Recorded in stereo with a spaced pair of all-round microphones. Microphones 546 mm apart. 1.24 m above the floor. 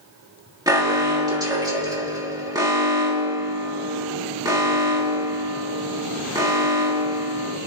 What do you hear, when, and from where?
0.7 s an alarm: 5° right (ahead or behind), 2.5 m